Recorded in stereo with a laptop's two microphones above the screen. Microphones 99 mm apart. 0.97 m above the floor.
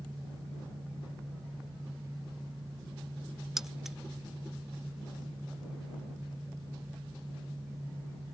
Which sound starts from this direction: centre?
Keys jangling, at 3.6 s.